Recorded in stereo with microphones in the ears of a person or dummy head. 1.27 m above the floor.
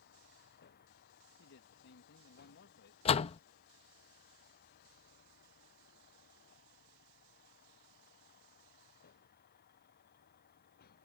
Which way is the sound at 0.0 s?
55° left (ahead or behind).